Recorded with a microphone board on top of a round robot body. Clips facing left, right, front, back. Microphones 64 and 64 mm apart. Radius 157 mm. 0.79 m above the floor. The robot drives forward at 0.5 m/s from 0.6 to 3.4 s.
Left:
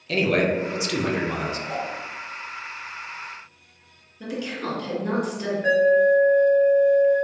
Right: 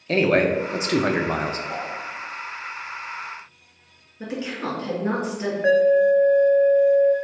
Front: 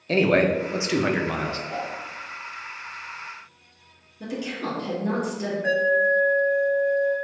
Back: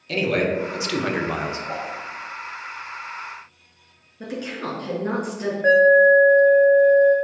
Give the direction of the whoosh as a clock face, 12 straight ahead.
6 o'clock.